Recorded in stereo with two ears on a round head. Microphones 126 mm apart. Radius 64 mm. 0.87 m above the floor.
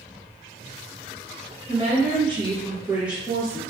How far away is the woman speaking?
About 0.9 m.